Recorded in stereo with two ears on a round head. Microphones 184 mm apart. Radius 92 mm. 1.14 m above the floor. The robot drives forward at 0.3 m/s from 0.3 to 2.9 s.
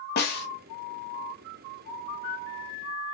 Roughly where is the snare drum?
Left.